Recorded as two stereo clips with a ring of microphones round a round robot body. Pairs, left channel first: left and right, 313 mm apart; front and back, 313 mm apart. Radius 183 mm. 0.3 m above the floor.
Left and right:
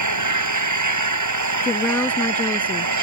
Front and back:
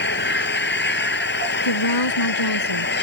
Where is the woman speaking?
5° left.